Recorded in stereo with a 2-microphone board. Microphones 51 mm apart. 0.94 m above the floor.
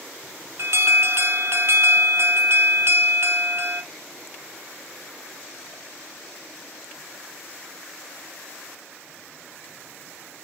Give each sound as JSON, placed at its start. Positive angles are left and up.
{"t": 0.6, "sound": "an alarm", "side_deg": -55, "distance_m": 0.6}